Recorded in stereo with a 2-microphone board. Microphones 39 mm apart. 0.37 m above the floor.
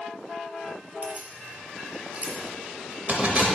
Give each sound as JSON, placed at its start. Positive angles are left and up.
{"t": 1.0, "sound": "keys jangling", "side_deg": -40, "distance_m": 0.8}